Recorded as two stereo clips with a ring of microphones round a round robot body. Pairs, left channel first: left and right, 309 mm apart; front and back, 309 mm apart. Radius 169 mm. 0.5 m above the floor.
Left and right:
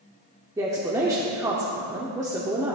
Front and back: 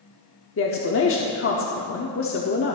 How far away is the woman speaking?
About 0.9 m.